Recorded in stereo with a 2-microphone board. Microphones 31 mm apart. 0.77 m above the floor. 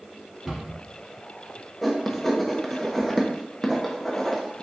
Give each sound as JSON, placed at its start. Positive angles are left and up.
{"t": 0.5, "sound": "a cupboard door", "side_deg": -10, "distance_m": 1.7}
{"t": 1.8, "sound": "writing", "side_deg": 5, "distance_m": 0.7}